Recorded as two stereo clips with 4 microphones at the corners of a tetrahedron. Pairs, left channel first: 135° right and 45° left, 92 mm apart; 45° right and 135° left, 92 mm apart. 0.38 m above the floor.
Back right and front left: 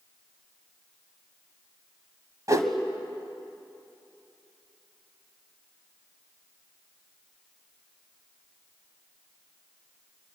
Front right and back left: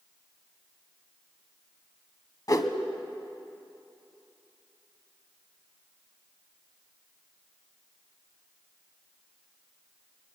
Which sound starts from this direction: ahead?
A whoosh, at 2.5 s.